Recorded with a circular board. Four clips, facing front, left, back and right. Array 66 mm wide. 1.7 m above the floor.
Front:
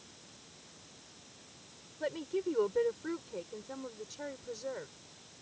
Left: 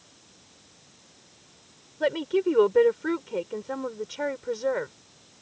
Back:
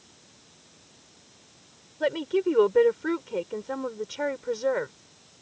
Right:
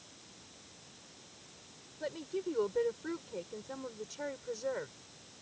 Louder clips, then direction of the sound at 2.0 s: Left 14 dB, back 10 dB; 130° left.